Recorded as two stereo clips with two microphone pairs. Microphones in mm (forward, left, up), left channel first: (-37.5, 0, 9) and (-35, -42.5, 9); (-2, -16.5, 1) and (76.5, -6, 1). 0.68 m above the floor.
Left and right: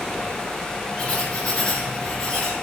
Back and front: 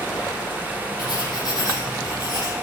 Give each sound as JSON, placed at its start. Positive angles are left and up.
{"t": 1.0, "sound": "writing", "azimuth_deg": 155, "distance_m": 3.5}